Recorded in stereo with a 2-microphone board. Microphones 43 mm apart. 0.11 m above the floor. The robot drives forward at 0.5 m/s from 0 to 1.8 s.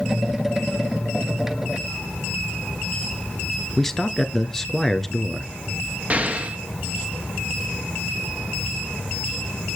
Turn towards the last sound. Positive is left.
turn(degrees=-40)  # may be behind; listen again after turning